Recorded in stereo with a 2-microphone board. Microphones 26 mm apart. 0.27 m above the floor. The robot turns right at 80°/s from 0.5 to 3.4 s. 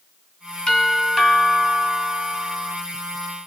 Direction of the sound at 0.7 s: 135° left.